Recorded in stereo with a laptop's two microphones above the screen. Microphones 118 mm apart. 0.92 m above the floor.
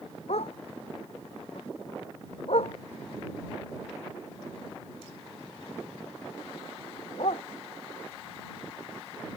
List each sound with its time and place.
0.3 s a dog barking: 65° left (ahead or behind); by 7.4 s 60° left (ahead or behind)